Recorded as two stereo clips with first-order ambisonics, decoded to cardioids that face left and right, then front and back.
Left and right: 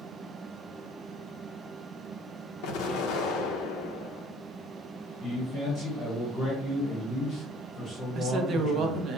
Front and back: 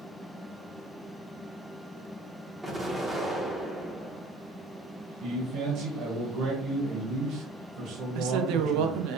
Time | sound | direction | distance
2.6 | an explosion | 95° left | 0.7 m
5.2 | a man speaking | 155° left | 1.1 m
8.2 | a woman speaking | 150° right | 0.6 m